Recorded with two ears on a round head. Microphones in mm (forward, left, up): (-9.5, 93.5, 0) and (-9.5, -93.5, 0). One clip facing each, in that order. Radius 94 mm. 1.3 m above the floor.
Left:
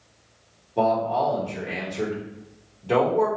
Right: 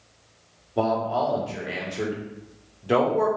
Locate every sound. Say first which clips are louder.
0.8 s a man speaking: left 1 dB; 10° right (ahead or behind), 0.8 m